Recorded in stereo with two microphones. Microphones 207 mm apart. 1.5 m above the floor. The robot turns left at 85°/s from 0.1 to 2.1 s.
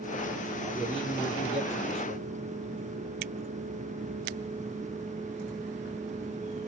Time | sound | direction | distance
0.6 | a man speaking | 155° right | 4.5 m